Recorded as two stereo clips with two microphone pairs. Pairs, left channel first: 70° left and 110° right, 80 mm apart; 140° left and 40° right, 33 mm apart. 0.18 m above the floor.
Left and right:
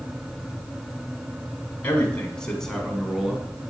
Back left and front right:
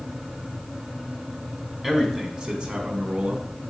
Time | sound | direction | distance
1.8 | a man speaking | 25° left | 1.4 m